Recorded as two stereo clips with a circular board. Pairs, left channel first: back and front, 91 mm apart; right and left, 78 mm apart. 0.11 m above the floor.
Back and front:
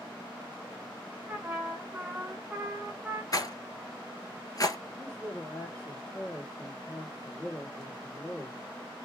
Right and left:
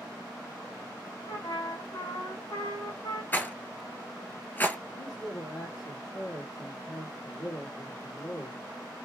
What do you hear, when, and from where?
1.3 s a trumpet: 70° right, 2 m
3.3 s a rattle: 150° right, 0.8 m
5.0 s a man speaking: 95° right, 3 m